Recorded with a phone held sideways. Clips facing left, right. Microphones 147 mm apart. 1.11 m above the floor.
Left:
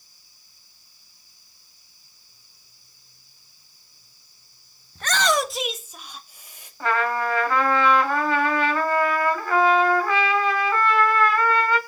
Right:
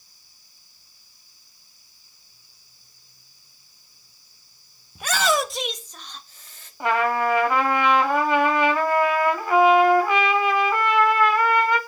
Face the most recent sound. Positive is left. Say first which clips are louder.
# right 2 dB
turn(degrees=-20)  # may be behind; listen again after turning